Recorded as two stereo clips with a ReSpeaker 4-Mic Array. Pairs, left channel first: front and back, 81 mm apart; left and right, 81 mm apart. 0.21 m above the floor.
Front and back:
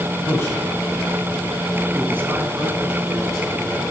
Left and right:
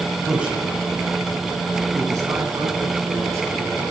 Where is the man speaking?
20° right, 1.5 m; by 3.6 s 140° right, 3 m.